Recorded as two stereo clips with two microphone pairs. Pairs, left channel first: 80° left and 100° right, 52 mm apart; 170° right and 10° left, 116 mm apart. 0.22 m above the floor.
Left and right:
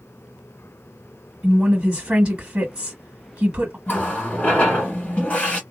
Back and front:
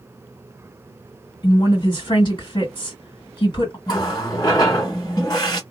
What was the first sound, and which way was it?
A woman speaking, 160° right.